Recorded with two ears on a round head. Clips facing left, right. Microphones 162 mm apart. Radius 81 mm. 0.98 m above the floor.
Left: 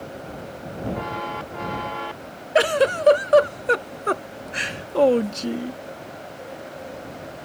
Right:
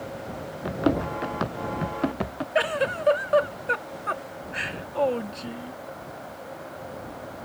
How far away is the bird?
No bird in this recording.